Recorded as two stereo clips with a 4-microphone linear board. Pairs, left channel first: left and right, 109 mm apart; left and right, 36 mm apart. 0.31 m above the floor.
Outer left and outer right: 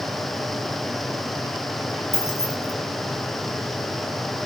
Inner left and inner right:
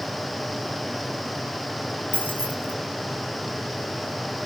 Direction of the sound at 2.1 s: 70° left (ahead or behind).